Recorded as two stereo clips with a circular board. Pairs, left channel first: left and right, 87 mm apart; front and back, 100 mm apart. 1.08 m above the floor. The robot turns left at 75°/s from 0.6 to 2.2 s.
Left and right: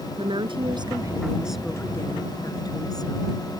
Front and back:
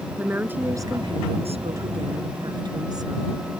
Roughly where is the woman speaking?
Right.